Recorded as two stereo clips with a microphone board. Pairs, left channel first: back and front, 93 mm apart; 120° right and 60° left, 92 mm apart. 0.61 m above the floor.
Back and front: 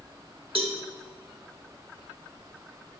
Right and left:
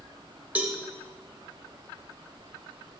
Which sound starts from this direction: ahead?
A cowbell, at 0.6 s.